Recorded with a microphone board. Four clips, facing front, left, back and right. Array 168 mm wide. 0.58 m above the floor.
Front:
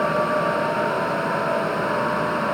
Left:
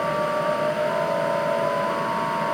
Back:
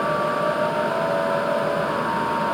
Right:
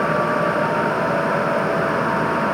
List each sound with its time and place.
Only background noise.